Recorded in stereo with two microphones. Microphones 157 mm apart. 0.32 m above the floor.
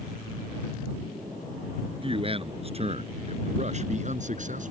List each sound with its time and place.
2.0 s a man speaking: 35° right (ahead or behind); by 4.7 s 55° right (ahead or behind)